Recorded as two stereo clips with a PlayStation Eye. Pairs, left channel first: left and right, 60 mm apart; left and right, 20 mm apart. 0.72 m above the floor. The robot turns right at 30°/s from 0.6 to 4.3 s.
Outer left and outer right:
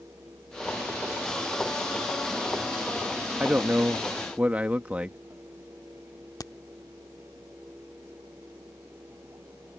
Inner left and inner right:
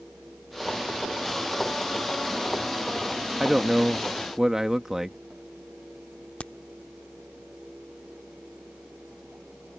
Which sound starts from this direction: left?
A crack, at 6.4 s.